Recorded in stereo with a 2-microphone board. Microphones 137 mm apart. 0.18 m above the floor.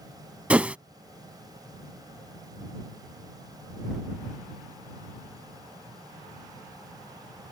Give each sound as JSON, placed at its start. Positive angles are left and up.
{"t": 0.5, "sound": "a whoosh", "side_deg": -10}